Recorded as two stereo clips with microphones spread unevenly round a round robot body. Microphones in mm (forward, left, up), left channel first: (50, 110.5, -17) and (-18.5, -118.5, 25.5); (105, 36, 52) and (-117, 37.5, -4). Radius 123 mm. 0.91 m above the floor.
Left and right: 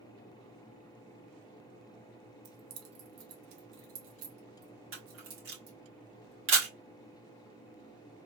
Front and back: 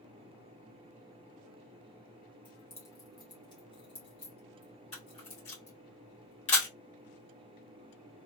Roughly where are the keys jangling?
Right.